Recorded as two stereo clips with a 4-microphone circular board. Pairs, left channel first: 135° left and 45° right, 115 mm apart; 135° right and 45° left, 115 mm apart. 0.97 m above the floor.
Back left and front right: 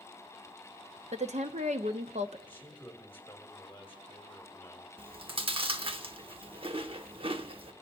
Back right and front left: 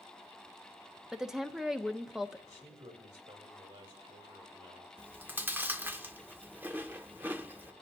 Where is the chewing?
25° right, 0.8 m.